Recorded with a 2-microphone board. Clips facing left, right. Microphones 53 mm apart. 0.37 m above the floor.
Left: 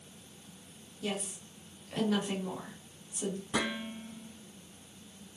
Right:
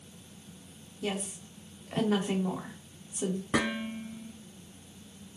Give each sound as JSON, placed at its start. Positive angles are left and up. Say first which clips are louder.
{"t": 1.0, "sound": "a woman speaking", "louder": "right 2 dB", "side_deg": -25, "distance_m": 1.6}
{"t": 3.5, "sound": "dishes clattering", "louder": "right 4 dB", "side_deg": -60, "distance_m": 3.5}